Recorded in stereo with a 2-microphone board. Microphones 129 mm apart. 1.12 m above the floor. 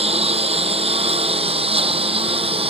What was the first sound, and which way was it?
A lawn mower, 50° right (ahead or behind).